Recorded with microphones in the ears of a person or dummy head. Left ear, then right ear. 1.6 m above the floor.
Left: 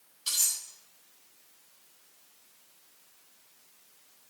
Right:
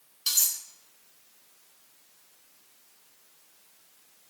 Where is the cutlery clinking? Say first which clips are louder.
Right 3 dB; 25° right (ahead or behind), 4 m.